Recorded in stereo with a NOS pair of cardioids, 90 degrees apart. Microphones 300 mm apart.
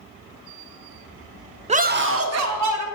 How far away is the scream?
About 0.6 m.